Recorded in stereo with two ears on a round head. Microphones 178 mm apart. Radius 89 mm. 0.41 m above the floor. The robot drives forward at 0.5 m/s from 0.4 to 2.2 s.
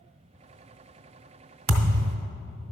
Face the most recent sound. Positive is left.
turn(degrees=-60)  # may be behind; listen again after turning